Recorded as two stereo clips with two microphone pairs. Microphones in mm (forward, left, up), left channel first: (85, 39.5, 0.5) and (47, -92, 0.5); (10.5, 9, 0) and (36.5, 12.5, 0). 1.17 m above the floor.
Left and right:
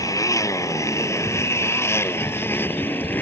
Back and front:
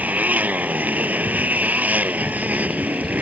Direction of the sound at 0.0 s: 10° left.